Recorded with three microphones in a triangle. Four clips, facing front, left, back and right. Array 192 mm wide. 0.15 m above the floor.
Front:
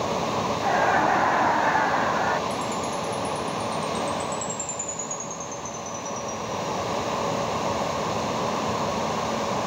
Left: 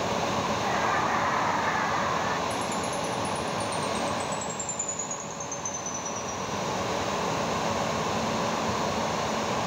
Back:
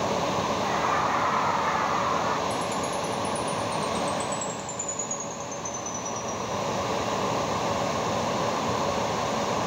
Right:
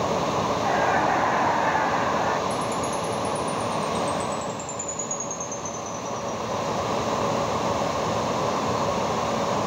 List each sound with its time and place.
0.6 s laughter: 30° right; by 2.4 s 35° right
2.5 s a chime: 25° right